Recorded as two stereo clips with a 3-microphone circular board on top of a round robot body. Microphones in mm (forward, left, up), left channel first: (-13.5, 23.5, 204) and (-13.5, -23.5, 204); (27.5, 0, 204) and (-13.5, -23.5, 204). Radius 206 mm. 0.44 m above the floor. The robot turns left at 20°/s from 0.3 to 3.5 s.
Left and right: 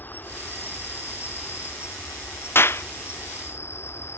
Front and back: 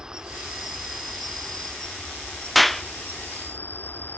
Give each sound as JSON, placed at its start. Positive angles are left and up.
{"t": 0.0, "sound": "an insect", "azimuth_deg": 135}
{"t": 2.5, "sound": "a clap", "azimuth_deg": 120}